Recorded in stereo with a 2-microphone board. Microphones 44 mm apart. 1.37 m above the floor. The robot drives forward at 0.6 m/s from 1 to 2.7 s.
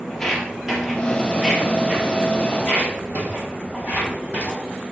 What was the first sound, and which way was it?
Footsteps, 5° left (ahead or behind).